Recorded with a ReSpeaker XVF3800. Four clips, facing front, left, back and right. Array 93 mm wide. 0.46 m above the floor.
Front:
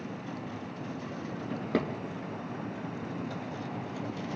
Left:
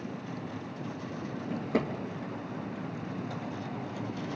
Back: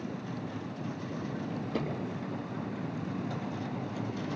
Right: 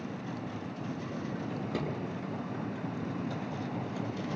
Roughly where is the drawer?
Ahead left.